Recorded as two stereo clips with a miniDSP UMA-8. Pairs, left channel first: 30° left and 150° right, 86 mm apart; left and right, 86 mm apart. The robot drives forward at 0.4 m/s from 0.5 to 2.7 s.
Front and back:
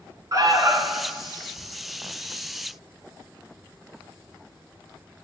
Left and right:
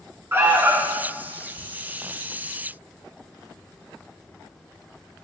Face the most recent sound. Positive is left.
turn(degrees=-165)